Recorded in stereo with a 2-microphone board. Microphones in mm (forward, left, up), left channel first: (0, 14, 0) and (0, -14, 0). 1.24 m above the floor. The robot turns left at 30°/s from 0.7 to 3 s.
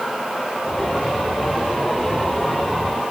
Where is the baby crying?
I don't hear a baby crying.